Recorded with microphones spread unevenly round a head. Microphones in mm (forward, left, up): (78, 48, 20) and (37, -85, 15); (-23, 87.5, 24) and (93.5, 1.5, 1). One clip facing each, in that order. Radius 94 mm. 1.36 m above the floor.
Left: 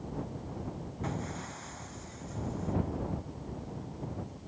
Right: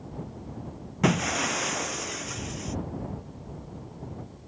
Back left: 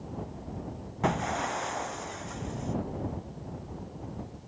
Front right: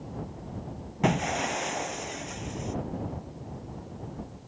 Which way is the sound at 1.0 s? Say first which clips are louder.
Right 14 dB, front right 2 dB; 115° right.